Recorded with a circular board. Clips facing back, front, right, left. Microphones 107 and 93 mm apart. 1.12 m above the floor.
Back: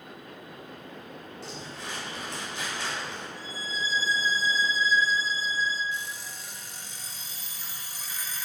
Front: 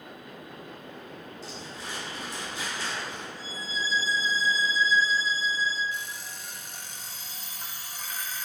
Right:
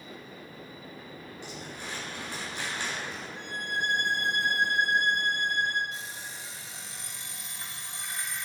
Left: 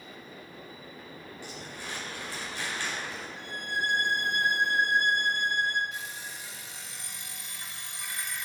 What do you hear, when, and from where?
1.4 s crumpling: 160° right, 4.5 m
3.4 s a violin: 175° left, 3.5 m
5.9 s an alarm clock: 30° right, 1.4 m